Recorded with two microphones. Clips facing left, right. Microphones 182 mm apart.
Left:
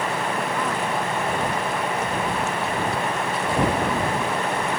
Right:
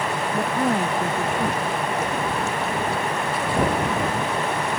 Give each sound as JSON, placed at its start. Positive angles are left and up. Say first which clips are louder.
{"t": 0.3, "sound": "a woman speaking", "louder": "right 4 dB", "side_deg": -40}